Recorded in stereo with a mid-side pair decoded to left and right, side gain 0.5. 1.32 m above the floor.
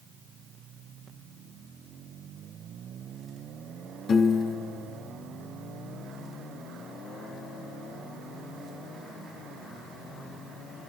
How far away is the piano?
About 1.6 m.